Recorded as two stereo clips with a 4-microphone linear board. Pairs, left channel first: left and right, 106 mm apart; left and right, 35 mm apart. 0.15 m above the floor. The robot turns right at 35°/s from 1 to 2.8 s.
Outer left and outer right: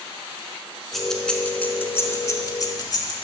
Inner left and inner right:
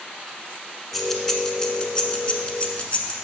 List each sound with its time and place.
0.9 s keys jangling: centre (ahead or behind), 0.9 m; by 3.1 s 40° left (ahead or behind), 0.9 m